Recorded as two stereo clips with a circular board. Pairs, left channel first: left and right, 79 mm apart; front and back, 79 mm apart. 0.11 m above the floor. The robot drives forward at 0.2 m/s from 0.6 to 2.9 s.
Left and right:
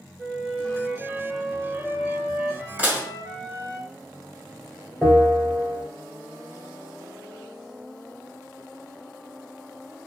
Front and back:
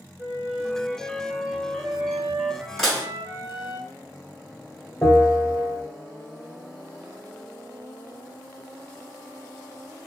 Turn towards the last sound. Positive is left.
turn(degrees=-170)